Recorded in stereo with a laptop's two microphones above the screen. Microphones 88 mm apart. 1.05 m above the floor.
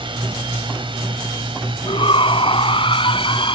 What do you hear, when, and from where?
0.0 s a drone: 70° right (ahead or behind); by 3.6 s 75° right (ahead or behind)
1.9 s a shout: 80° left